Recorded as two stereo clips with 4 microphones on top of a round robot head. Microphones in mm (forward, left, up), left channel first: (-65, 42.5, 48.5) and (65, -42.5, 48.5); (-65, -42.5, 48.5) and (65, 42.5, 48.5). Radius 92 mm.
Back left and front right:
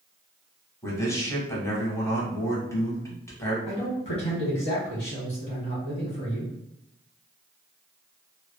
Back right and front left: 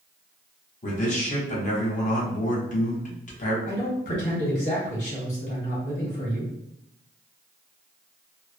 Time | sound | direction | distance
0.8 | a man speaking | 145° right | 1.0 m
3.7 | a man speaking | straight behind | 1.4 m